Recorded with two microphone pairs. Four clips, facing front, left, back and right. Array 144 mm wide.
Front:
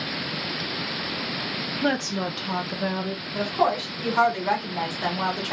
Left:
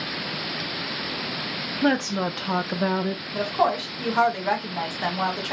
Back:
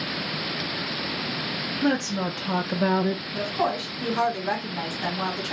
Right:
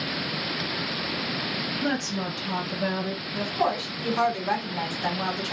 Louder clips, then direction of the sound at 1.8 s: Left 7 dB, back 1 dB; 70° left.